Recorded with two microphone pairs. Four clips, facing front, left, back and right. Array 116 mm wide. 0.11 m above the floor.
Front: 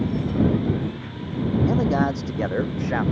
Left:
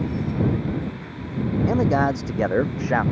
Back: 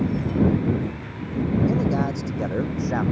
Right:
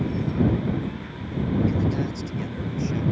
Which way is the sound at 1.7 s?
70° left.